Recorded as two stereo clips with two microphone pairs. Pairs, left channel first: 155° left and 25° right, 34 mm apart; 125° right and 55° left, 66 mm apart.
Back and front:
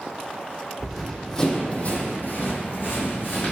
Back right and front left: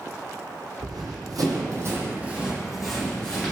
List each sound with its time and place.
0.8 s running footsteps: 55° left, 0.7 m; by 3.5 s 160° left, 1.1 m